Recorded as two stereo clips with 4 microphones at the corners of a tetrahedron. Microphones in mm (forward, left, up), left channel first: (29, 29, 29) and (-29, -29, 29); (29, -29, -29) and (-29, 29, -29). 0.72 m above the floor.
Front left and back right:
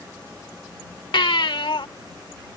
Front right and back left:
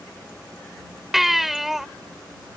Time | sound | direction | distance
1.1 | a baby crying | 45° left | ?